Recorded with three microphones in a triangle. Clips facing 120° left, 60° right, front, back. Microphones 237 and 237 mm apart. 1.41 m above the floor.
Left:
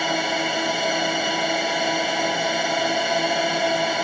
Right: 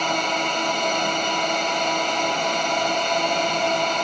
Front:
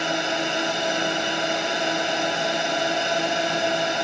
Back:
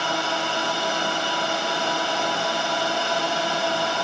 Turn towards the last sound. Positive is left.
turn(degrees=50)